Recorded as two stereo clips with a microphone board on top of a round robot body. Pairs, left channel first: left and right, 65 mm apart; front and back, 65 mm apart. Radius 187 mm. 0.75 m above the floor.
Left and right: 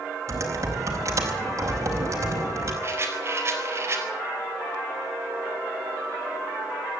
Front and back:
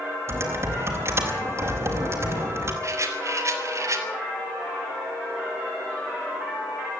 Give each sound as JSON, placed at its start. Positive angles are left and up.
{"t": 0.3, "sound": "typing on a keyboard", "azimuth_deg": -135, "distance_m": 4.5}
{"t": 2.8, "sound": "a rattle", "azimuth_deg": -145, "distance_m": 4.0}